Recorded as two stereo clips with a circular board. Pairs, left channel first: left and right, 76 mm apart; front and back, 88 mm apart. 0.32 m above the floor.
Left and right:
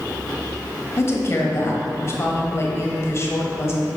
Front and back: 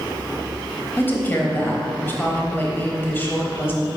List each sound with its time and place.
1.0 s a woman speaking: 60° left, 1.3 m